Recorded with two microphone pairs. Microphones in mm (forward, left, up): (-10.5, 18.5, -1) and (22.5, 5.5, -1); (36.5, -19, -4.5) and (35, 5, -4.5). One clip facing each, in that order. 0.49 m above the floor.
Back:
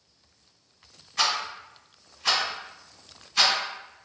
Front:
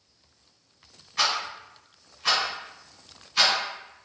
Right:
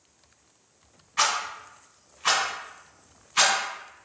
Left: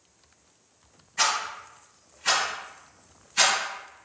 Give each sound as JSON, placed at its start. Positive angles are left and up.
{"t": 1.2, "sound": "a rattle", "azimuth_deg": -90, "distance_m": 1.5}